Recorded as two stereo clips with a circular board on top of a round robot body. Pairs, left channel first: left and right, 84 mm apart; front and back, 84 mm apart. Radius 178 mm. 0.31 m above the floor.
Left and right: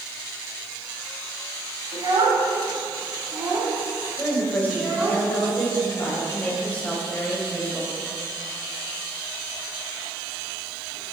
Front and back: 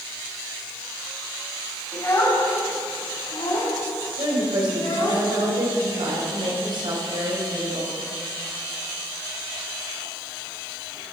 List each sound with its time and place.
1.9 s a child speaking: 60° right, 2.5 m; by 5.2 s 15° right, 3.5 m
4.2 s a woman speaking: 160° left, 3 m